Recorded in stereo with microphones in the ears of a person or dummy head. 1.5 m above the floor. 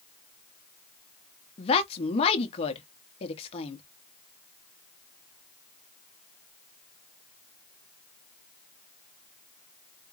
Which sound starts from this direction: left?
A woman speaking, at 1.6 s.